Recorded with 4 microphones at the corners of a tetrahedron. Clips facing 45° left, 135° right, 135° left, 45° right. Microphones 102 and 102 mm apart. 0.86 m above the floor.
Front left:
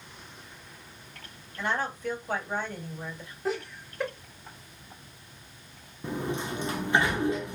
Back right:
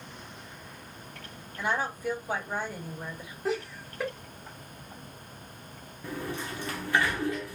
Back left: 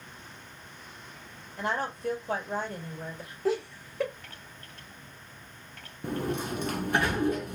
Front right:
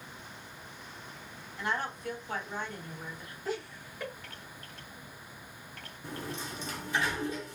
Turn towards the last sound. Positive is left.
turn(degrees=110)